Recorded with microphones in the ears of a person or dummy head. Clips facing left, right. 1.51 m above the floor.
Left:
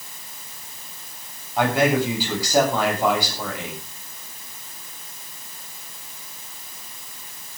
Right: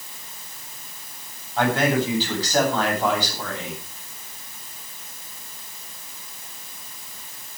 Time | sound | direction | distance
1.6 | a man speaking | 15° left (ahead or behind) | 8 m